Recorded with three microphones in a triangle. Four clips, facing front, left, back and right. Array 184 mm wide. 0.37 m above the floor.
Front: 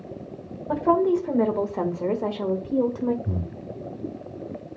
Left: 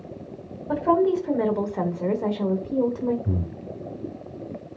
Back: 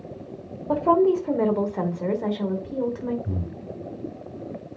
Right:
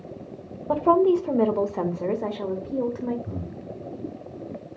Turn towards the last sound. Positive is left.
turn(degrees=85)